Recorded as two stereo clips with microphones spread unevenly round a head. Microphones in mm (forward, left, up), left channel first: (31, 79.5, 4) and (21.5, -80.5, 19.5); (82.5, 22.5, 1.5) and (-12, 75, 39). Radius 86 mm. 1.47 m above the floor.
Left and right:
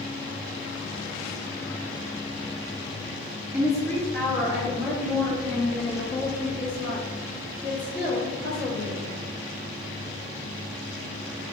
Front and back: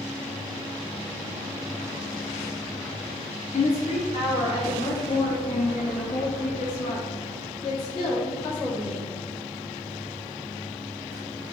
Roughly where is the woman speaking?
Ahead.